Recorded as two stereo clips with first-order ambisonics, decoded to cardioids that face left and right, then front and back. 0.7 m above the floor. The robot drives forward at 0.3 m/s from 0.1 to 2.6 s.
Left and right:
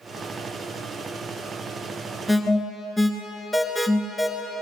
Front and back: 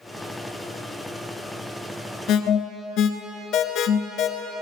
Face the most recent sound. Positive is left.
turn(degrees=15)